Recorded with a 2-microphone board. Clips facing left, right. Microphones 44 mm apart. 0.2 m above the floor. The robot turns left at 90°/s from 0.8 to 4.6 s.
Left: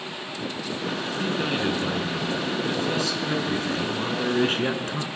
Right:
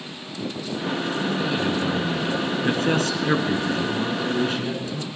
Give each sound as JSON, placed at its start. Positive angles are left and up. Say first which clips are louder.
{"t": 1.2, "sound": "a man speaking", "louder": "left 1 dB", "azimuth_deg": 55, "distance_m": 2.5}